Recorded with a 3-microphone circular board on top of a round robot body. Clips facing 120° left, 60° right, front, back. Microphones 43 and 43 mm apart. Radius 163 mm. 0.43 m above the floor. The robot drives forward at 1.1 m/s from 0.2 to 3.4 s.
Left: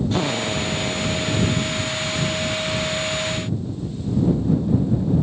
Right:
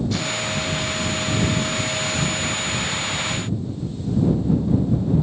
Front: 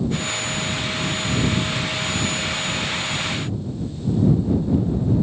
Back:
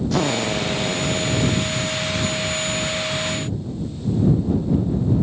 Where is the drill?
Straight behind.